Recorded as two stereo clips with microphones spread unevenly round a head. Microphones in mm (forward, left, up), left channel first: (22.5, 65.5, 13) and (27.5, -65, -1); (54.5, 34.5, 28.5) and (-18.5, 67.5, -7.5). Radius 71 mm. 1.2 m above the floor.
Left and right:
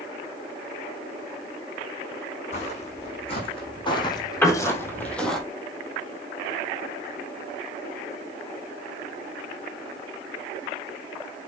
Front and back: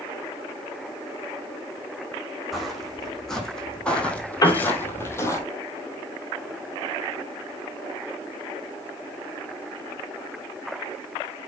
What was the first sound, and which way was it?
Footsteps, 60° left.